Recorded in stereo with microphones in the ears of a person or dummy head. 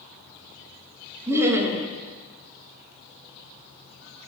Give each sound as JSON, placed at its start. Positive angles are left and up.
{"t": 1.3, "sound": "laughter", "side_deg": -5, "distance_m": 0.6}